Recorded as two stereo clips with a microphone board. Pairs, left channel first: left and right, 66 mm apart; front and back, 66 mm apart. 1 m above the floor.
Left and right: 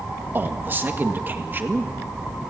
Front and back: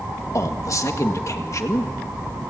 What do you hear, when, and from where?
0.3 s a man speaking: 35° right, 1.7 m